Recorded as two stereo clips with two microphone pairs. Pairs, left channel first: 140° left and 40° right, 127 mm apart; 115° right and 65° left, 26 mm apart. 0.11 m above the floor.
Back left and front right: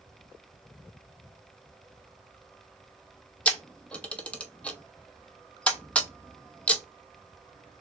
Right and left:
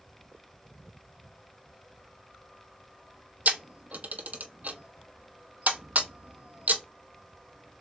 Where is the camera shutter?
60° left, 0.7 m.